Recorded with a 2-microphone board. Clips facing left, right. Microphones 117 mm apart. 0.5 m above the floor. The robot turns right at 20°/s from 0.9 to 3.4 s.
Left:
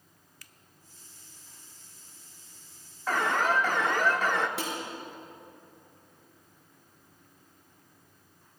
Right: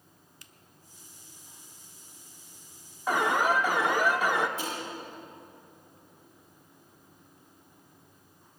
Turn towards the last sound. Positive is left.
turn(degrees=80)